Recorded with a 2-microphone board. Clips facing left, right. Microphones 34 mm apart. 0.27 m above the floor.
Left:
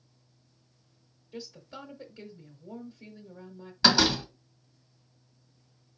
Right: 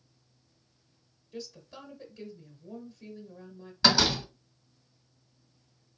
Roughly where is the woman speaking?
Left.